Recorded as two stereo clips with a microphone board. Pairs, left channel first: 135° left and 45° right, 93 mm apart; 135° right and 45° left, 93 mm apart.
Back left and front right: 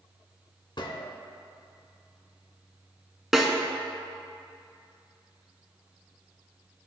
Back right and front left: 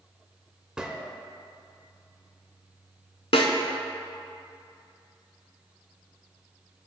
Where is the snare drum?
130° right, 0.9 m.